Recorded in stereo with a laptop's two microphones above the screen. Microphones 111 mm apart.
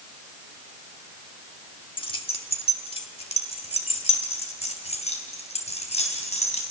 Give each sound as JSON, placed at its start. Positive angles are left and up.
{"t": 2.0, "sound": "keys jangling", "side_deg": 50, "distance_m": 1.3}